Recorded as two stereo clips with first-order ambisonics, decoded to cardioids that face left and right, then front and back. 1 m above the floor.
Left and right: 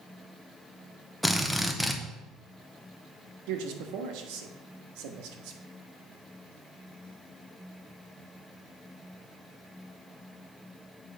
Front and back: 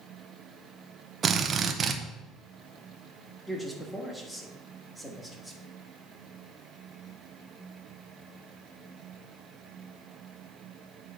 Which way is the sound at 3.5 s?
85° right.